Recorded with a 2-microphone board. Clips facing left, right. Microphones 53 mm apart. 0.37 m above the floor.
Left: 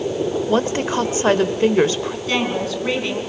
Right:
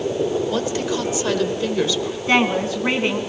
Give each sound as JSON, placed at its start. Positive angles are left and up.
{"t": 0.5, "sound": "a woman speaking", "side_deg": 40, "distance_m": 1.0}
{"t": 2.3, "sound": "a woman speaking", "side_deg": -30, "distance_m": 3.0}